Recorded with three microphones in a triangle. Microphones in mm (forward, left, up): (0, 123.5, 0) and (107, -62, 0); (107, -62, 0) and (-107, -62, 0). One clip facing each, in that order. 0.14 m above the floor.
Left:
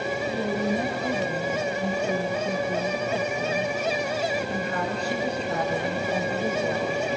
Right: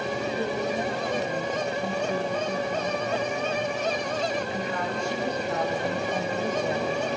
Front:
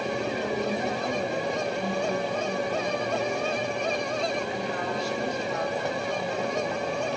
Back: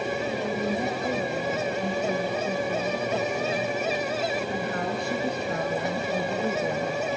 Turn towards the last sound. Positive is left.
turn(degrees=-160)